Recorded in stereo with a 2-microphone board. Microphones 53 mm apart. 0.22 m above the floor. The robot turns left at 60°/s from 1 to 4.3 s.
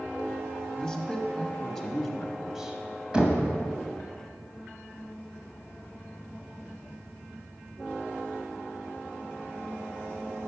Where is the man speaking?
20° left (ahead or behind), 1.0 m; by 2.8 s 15° right (ahead or behind), 1.0 m.